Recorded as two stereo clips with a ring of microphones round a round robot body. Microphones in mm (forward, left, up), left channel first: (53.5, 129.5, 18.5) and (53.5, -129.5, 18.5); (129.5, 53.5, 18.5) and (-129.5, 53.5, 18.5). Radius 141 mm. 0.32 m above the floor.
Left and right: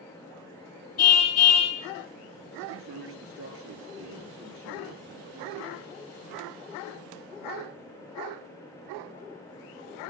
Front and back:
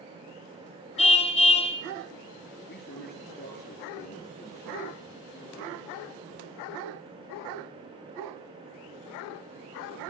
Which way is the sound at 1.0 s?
65° left.